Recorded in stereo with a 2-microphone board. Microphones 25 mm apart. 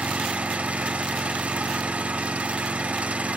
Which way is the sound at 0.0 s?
75° right (ahead or behind).